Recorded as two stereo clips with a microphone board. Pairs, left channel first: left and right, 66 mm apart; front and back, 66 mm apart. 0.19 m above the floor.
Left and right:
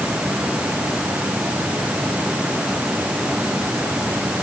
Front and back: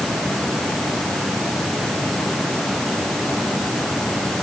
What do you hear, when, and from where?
Only background noise.